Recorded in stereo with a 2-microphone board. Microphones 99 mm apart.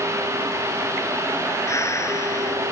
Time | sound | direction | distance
1.7 | breathing | 30° left (ahead or behind) | ?